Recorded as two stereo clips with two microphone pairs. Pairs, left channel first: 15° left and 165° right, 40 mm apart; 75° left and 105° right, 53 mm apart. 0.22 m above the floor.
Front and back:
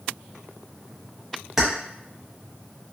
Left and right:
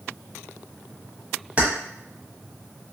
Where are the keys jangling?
95° right, 0.9 m.